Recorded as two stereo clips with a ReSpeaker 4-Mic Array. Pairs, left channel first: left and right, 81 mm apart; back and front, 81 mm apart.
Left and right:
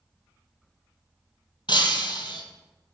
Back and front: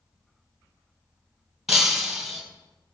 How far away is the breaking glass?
About 1.5 m.